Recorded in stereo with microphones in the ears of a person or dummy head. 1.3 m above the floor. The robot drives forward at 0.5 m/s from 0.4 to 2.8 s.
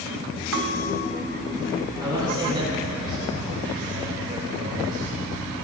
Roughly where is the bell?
Right.